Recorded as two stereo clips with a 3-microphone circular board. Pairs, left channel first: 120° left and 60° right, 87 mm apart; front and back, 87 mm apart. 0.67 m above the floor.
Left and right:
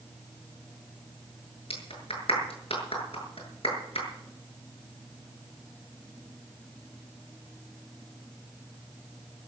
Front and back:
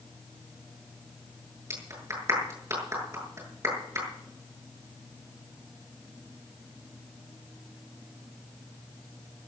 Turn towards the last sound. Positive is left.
turn(degrees=120)